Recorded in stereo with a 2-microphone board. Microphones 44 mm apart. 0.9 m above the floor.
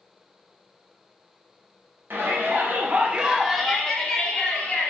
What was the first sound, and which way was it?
A shout, 50° right (ahead or behind).